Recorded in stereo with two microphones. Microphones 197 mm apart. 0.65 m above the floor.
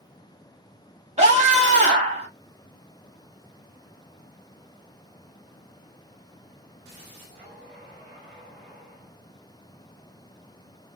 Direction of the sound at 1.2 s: 35° right (ahead or behind).